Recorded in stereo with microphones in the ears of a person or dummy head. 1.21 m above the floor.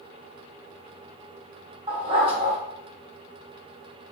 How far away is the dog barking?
About 1.5 m.